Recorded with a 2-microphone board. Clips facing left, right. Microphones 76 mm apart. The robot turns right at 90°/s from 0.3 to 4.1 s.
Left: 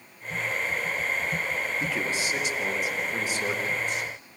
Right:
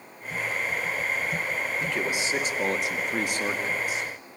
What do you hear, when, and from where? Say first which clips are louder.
1.8 s a man speaking: right 1 dB; 165° left, 2.5 m; by 4.1 s 10° left, 2.5 m